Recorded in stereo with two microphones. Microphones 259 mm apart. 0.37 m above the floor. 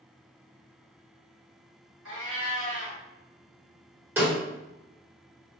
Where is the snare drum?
10° right (ahead or behind), 1.3 m.